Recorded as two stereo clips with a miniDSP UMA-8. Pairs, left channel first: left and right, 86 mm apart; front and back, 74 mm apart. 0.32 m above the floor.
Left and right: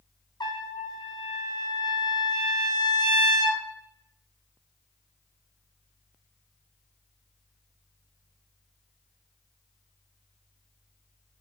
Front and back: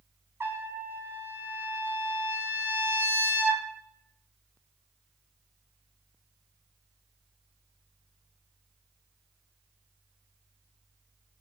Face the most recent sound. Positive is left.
turn(degrees=125)